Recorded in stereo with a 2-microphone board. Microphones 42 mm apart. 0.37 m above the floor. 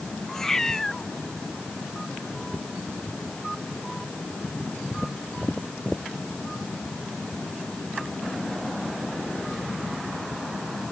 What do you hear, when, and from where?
0.3 s a cat meowing: 10° left (ahead or behind)